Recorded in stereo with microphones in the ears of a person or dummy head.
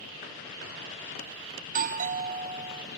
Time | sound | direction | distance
1.6 | a doorbell | 35° right (ahead or behind) | 0.6 m